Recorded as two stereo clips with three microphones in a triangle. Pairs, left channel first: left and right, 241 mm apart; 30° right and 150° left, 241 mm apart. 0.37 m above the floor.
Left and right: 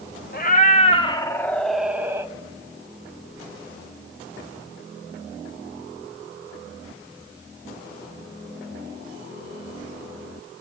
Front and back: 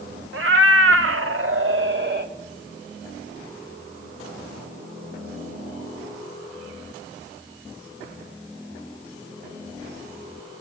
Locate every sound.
0.3 s a cat meowing: 135° left, 1.0 m; by 2.3 s 165° right, 1.1 m